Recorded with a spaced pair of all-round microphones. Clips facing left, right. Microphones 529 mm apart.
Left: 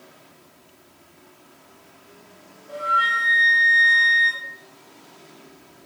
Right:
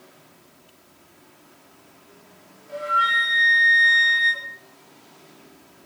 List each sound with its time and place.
2.7 s a flute: 85° left, 3.5 m